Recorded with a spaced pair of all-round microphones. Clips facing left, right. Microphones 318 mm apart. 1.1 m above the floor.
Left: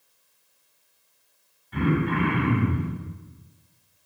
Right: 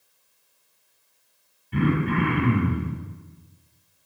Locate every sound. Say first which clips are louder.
1.7 s throat clearing: right 1 dB; 40° right (ahead or behind), 6.5 m